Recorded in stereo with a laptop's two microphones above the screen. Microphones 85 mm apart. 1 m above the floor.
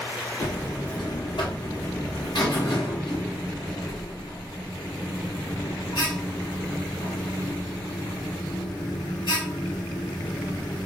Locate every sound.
0.4 s a buzzer: 70° left (ahead or behind), 1.0 m